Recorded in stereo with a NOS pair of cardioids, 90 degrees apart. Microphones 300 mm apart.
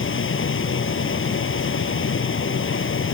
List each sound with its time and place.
0.0 s a machine running: 40° left